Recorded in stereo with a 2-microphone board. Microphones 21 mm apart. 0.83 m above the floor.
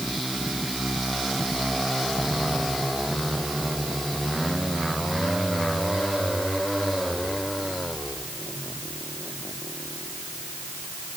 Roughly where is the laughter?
I don't hear laughter.